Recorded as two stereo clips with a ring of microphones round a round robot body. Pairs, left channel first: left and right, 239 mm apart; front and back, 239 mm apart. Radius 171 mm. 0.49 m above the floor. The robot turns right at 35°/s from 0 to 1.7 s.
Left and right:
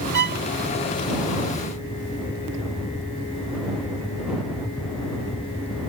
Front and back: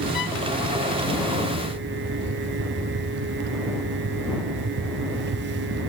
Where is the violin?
55° right; by 0.5 s 45° right.